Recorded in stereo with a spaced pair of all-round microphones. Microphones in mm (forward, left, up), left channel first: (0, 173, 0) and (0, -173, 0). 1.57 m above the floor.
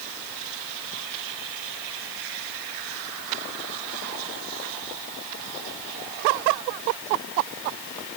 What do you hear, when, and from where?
Only background noise.